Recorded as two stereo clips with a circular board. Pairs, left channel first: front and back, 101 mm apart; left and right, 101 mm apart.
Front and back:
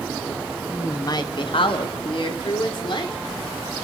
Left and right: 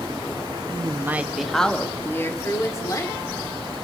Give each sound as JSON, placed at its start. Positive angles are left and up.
{"t": 0.7, "sound": "a woman speaking", "azimuth_deg": -60, "distance_m": 1.0}